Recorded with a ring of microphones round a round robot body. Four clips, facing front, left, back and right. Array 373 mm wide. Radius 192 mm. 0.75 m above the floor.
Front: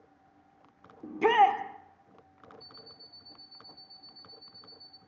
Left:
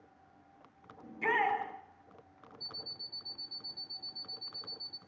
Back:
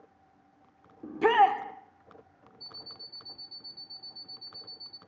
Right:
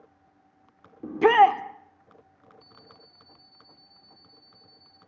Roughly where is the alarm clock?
Behind left.